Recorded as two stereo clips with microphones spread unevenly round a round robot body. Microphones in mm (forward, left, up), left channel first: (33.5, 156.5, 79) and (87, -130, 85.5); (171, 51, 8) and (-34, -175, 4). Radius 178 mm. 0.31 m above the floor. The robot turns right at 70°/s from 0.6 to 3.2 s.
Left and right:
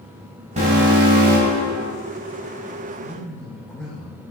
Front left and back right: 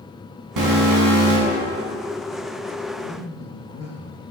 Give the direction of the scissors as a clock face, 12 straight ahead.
No scissors in this recording.